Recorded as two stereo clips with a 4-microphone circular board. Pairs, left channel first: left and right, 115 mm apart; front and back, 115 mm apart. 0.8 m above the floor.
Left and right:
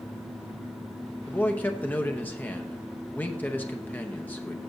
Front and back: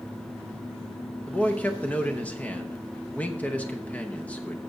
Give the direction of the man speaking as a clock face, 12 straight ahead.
10 o'clock.